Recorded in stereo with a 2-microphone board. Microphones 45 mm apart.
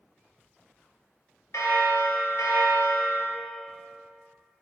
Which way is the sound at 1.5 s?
75° left (ahead or behind).